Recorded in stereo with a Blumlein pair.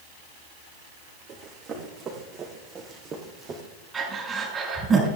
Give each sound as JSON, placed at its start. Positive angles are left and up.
{"t": 1.3, "sound": "running footsteps", "azimuth_deg": -30, "distance_m": 4.5}
{"t": 3.9, "sound": "breathing", "azimuth_deg": -15, "distance_m": 4.5}